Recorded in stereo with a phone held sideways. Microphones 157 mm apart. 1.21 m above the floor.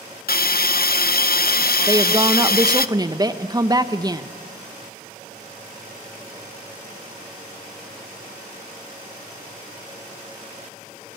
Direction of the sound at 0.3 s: 75° left (ahead or behind).